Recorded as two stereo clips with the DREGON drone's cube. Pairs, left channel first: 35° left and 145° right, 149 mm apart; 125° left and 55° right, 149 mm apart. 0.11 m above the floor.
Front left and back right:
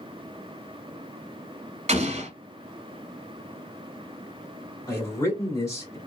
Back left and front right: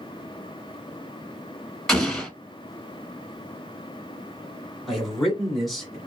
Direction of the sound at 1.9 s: 150° right.